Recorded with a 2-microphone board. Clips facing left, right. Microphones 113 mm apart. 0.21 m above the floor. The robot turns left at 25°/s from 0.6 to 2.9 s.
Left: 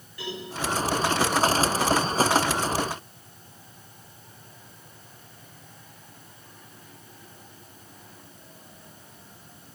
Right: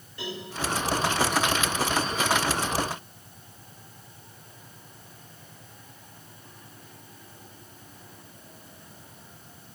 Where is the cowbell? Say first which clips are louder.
Left 1 dB; 25° right (ahead or behind), 9.5 m.